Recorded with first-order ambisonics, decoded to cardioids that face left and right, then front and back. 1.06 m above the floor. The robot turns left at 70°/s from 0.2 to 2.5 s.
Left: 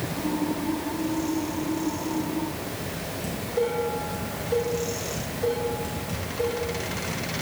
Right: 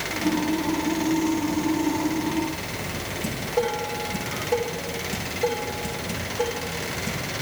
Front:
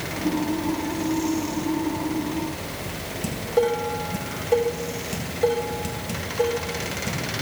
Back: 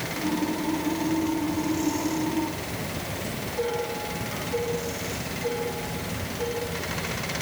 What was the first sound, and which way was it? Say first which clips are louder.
Dishes clattering: right 1 dB, front 9 dB; 20° right.